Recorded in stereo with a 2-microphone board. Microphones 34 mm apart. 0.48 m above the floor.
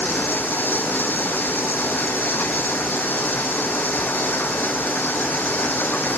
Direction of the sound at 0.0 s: 75° left (ahead or behind).